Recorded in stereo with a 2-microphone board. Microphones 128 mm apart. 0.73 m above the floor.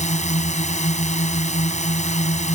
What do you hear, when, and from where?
0.0 s a drone: 65° left (ahead or behind)